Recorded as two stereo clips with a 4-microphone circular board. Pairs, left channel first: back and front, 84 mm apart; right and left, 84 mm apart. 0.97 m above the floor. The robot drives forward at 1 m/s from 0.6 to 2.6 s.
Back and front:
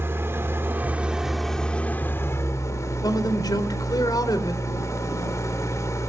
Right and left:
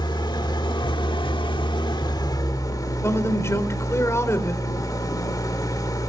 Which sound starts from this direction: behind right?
A man speaking, at 3.0 s.